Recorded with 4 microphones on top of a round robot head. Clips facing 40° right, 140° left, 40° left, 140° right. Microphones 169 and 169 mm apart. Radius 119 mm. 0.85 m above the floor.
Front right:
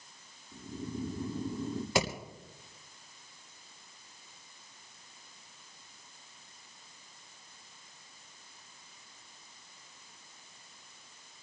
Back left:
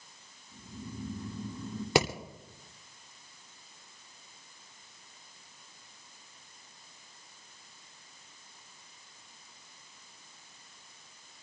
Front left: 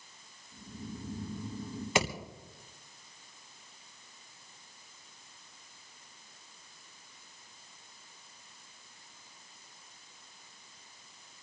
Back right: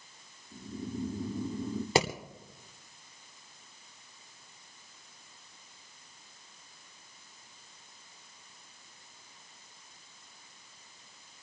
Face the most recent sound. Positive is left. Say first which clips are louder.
# back left 4 dB, back right 3 dB
turn(degrees=165)